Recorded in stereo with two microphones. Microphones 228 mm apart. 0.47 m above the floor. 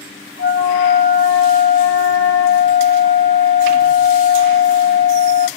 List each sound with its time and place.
0.4 s a flute: 65° left (ahead or behind), 0.8 m